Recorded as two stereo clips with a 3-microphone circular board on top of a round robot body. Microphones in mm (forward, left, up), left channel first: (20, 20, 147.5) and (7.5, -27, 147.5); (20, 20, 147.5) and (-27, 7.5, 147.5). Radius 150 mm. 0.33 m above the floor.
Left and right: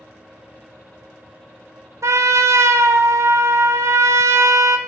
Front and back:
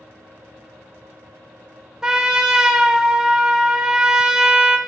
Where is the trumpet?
90° right, 0.6 m.